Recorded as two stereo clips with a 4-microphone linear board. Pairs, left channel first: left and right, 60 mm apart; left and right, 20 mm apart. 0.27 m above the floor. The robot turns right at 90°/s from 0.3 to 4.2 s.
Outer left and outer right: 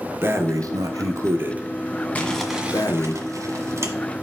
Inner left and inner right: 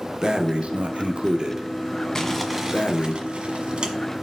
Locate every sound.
0.2 s breathing: 140° right, 1.0 m; by 3.1 s 115° left, 1.0 m
2.1 s crumpling: 155° left, 1.4 m; by 3.9 s 45° right, 1.4 m